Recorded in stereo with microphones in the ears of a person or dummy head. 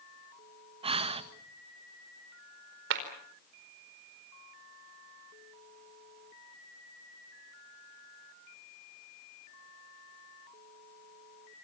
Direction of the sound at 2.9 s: 65° right (ahead or behind).